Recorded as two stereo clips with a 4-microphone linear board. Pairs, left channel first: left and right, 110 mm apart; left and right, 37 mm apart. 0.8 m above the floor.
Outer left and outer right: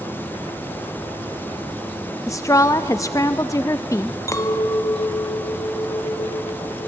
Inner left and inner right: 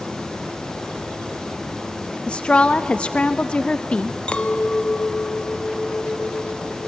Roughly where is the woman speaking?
Left.